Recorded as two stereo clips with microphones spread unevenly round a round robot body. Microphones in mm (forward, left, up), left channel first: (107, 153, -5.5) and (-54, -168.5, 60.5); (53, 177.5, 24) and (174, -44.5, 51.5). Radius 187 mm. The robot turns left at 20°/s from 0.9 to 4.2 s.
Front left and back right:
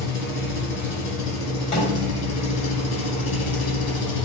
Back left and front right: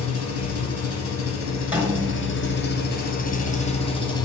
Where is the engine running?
115° left, 2 m; by 4.3 s 50° left, 2 m.